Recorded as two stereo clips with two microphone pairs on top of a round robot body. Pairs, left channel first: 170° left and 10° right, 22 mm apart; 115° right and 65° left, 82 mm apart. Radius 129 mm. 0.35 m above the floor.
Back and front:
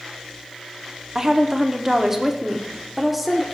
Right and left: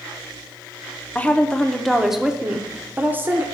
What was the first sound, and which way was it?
A woman speaking, 25° right.